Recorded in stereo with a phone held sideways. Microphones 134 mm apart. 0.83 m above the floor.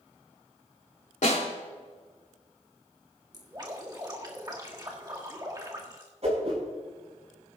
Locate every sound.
1.2 s a snare drum: 65° left (ahead or behind), 3 m
3.3 s dripping: 30° right (ahead or behind), 1.7 m
6.2 s a whoosh: 55° right (ahead or behind), 5 m